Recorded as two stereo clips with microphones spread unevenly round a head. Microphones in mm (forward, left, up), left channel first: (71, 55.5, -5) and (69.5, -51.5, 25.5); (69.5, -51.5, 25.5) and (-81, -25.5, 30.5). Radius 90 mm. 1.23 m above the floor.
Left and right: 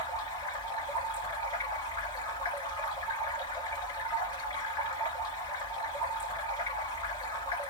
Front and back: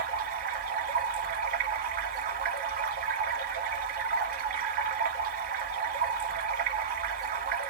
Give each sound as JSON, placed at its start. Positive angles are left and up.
{"t": 0.0, "sound": "running water", "azimuth_deg": 160, "distance_m": 1.6}